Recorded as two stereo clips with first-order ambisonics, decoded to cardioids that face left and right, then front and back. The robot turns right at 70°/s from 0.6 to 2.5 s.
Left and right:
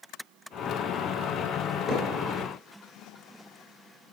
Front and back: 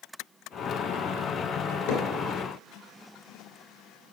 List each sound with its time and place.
1.9 s hammering: straight ahead, 3 m; by 2.0 s 10° left, 3 m